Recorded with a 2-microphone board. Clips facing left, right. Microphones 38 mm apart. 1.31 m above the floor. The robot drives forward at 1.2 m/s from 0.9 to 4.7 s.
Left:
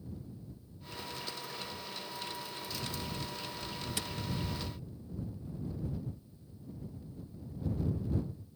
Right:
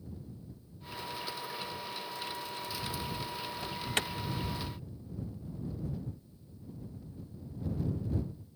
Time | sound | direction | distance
3.6 | an alarm | 70° right (ahead or behind) | ?